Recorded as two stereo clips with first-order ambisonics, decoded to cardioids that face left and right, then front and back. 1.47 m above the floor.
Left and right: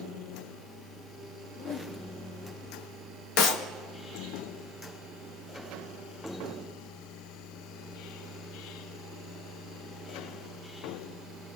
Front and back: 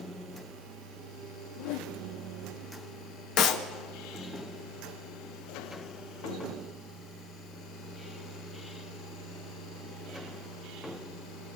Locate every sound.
1.5 s a whoosh: 20° left, 2.5 m
3.4 s a clap: 50° left, 2.0 m